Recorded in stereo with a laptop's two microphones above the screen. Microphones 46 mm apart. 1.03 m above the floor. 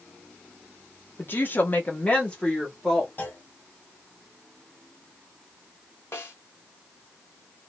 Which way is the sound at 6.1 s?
55° left (ahead or behind).